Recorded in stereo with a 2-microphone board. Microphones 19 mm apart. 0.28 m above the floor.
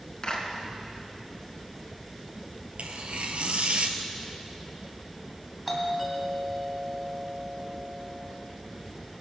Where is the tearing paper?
85° right, 1.1 m.